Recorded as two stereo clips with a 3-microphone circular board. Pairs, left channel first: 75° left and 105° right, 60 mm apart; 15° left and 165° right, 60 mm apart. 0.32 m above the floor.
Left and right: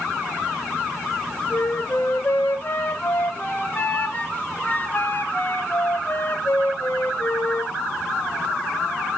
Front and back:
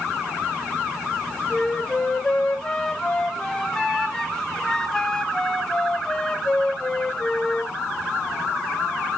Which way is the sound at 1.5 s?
80° left.